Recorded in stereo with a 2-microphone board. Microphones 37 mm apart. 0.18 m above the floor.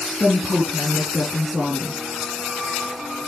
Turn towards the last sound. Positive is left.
turn(degrees=-35)  # may be behind; listen again after turning